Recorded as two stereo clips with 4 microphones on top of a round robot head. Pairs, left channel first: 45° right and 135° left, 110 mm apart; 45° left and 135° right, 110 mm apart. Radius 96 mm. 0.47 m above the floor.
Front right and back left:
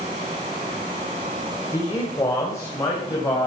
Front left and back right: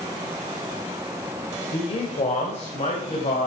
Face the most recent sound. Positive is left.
turn(degrees=20)